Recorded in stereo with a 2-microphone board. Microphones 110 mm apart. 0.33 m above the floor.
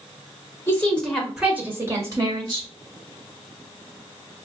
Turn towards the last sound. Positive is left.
turn(degrees=-45)  # may be behind; listen again after turning